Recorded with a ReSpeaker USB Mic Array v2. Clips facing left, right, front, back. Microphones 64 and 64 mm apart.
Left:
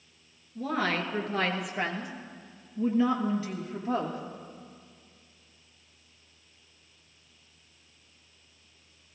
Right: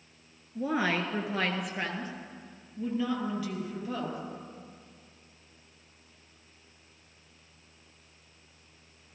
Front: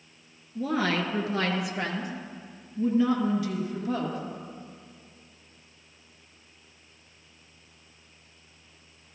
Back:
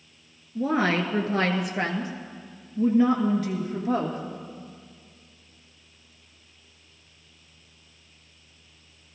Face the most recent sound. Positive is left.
turn(degrees=145)